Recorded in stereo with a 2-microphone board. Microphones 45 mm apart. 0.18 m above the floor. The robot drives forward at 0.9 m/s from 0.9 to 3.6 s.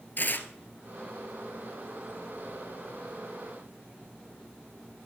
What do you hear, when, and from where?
0.2 s tearing paper: 45° left (ahead or behind), 0.9 m